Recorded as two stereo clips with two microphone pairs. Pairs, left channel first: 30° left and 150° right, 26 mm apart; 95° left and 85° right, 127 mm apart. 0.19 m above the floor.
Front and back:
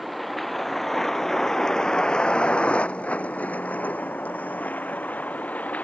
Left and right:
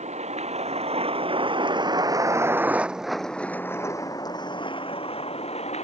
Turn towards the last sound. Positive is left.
turn(degrees=55)